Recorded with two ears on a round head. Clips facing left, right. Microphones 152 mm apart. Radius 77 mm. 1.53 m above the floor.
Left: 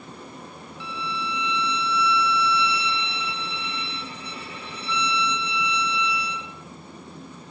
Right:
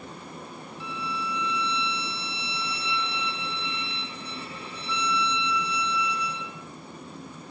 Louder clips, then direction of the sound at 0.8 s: Left 2 dB; 60° left (ahead or behind).